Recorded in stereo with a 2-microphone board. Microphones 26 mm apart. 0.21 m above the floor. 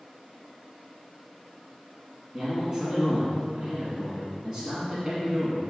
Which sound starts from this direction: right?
A man speaking, at 2.3 s.